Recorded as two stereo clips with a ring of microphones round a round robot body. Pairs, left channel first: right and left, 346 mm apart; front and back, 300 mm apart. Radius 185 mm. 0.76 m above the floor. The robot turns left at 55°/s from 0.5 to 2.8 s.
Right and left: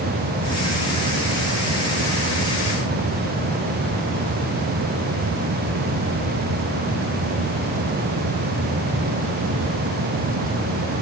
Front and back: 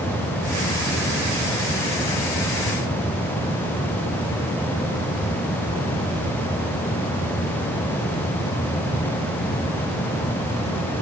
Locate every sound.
Only background noise.